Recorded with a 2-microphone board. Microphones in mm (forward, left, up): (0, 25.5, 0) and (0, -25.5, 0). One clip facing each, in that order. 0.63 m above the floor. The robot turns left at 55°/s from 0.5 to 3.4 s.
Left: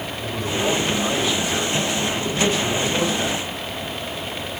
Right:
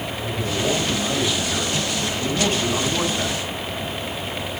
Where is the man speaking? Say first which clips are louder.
Left 1 dB; 40° left, 7 m; by 3.4 s 120° right, 7 m.